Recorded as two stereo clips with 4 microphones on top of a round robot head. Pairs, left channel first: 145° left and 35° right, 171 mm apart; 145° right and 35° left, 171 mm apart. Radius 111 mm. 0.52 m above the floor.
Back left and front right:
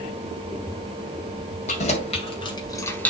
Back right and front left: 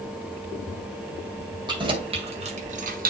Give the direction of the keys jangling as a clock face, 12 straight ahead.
9 o'clock.